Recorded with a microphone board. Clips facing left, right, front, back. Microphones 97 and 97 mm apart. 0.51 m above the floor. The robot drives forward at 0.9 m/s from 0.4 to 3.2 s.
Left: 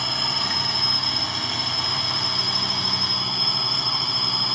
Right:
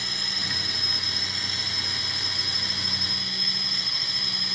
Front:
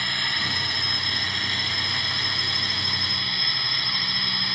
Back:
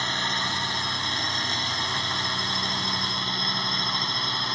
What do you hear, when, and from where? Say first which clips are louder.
0.0 s a drone: left 9 dB, back 2 dB; 115° left; by 4.5 s 120° left